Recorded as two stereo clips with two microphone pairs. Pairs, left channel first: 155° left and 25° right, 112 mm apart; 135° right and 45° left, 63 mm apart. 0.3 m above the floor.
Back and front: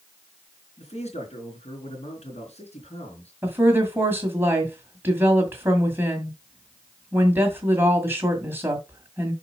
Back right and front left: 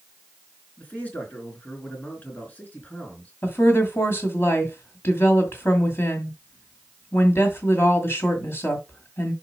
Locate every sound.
0.8 s a man speaking: 165° left, 3.5 m
3.4 s a woman speaking: 90° right, 1.9 m